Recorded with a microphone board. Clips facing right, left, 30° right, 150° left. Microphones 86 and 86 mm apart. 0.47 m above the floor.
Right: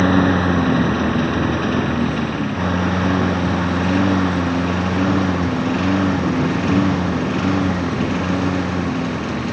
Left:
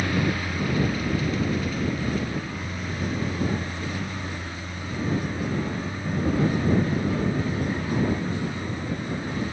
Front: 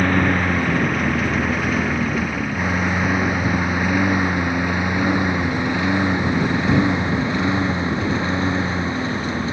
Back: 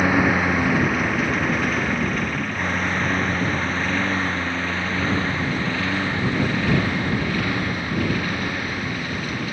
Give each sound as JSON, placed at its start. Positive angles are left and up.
{"t": 0.0, "sound": "a lawn mower", "azimuth_deg": -125}